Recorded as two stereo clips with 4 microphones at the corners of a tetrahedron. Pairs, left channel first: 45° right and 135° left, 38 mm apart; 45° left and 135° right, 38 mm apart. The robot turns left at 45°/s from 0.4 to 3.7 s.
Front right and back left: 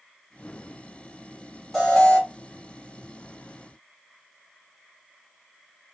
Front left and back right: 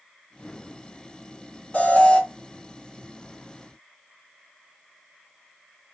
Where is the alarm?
30° left, 2.5 m; by 2.2 s 10° left, 2.5 m.